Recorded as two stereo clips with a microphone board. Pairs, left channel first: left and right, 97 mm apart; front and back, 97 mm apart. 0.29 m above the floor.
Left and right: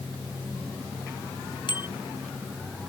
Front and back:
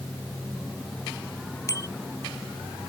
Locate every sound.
1.7 s a bicycle bell: 55° left